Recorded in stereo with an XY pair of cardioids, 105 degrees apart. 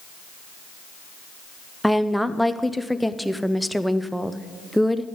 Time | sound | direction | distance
1.8 | a woman speaking | straight ahead | 0.6 m